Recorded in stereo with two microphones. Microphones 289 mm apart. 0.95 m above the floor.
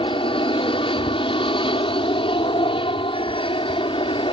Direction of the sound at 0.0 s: 20° left (ahead or behind).